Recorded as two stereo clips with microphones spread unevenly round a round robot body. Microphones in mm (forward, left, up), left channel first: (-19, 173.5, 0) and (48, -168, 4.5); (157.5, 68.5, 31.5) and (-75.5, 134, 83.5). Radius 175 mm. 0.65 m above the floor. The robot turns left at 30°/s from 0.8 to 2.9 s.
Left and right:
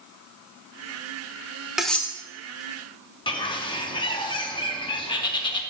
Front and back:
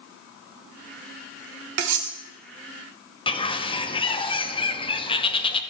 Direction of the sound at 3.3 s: 30° left.